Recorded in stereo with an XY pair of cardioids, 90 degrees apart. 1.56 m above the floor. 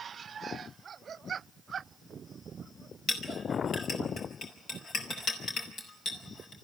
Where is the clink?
70° left, 4.5 m.